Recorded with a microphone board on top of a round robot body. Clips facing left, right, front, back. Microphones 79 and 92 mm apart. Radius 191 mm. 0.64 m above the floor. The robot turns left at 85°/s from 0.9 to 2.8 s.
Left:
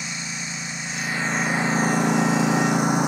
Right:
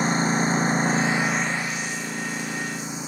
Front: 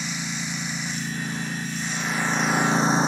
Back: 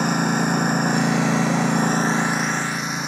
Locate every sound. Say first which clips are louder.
0.0 s a lawn mower: right 12 dB, back 12 dB; 140° right; by 3.1 s 60° left